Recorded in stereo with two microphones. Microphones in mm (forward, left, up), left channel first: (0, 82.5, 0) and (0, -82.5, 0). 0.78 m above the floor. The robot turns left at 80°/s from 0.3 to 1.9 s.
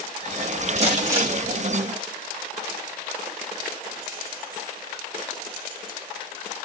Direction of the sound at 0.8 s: 130° right.